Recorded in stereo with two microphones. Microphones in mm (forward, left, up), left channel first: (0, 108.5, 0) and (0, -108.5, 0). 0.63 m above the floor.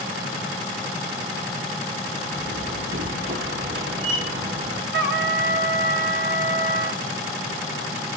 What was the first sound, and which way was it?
A door slam, 65° right (ahead or behind).